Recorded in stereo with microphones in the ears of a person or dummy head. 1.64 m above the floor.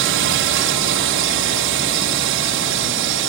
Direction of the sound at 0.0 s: 65° right (ahead or behind).